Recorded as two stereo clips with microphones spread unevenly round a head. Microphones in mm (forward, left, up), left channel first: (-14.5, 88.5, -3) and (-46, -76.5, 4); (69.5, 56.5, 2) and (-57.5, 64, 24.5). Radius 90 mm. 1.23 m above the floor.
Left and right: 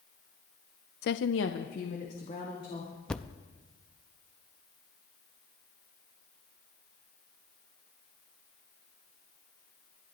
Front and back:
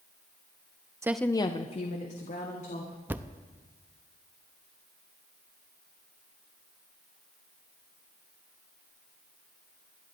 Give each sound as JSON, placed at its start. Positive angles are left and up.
{"t": 1.0, "sound": "a woman speaking", "azimuth_deg": 110, "distance_m": 0.5}
{"t": 3.1, "sound": "a thud", "azimuth_deg": 165, "distance_m": 0.5}